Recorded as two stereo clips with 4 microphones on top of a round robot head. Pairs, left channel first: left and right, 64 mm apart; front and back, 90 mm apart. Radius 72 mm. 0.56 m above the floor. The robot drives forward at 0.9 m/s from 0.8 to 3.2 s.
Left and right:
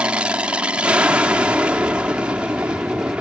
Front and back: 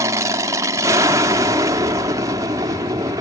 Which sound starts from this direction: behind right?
An aircraft, at 0.0 s.